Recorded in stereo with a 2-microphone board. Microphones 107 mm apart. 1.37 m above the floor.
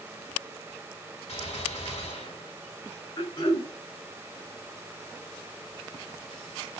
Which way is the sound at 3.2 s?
45° left (ahead or behind).